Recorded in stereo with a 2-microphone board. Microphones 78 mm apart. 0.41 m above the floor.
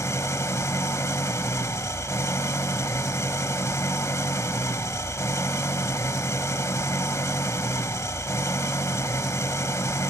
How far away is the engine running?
About 0.8 m.